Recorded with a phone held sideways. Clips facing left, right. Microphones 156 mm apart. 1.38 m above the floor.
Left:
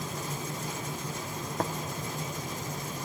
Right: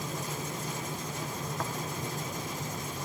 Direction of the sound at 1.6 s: 45° left (ahead or behind).